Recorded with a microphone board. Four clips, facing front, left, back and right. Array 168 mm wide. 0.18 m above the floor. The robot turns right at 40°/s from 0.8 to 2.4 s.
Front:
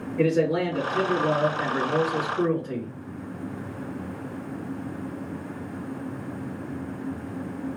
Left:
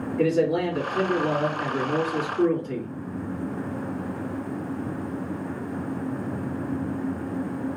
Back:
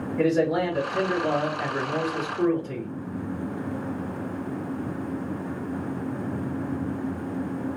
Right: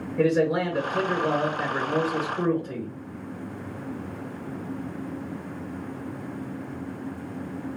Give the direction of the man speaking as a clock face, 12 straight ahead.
3 o'clock.